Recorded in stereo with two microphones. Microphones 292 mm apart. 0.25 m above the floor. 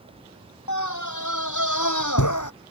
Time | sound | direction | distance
0.7 | a scream | 75° left (ahead or behind) | ?